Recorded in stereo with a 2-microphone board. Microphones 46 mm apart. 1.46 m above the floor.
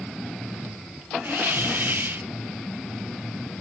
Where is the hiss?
50° right (ahead or behind), 1.3 m.